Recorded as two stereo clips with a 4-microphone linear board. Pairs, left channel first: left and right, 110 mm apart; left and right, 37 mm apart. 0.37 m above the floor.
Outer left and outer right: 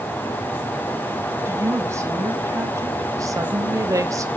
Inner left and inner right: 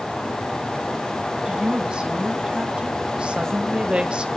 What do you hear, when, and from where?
1.4 s a woman speaking: 25° right (ahead or behind), 3.5 m; by 4.3 s 30° right (ahead or behind), 1.2 m